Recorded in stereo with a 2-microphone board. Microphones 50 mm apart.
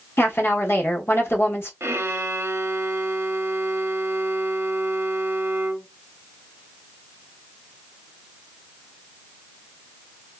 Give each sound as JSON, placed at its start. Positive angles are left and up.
{"t": 0.2, "sound": "a woman speaking", "side_deg": 50, "distance_m": 1.0}
{"t": 1.8, "sound": "a violin", "side_deg": -55, "distance_m": 0.6}